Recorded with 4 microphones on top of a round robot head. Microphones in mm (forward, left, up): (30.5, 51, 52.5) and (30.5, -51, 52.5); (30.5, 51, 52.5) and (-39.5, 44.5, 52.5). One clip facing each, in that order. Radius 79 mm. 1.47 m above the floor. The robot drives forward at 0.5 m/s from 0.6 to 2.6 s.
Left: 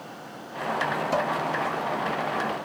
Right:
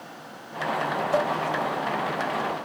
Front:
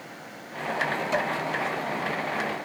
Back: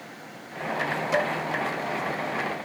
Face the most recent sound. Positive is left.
turn(degrees=130)